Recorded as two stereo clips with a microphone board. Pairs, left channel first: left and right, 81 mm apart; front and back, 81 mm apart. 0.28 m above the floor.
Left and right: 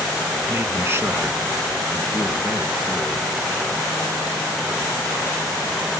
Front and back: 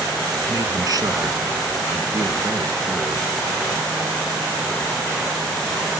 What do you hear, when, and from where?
0.5 s a man speaking: 150° right, 3.5 m; by 3.3 s 135° right, 6 m